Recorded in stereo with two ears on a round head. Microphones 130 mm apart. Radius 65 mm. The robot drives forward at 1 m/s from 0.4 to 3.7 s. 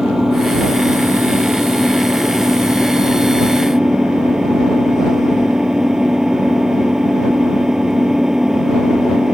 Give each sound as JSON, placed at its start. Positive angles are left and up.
{"t": 0.0, "sound": "an engine running", "side_deg": -5}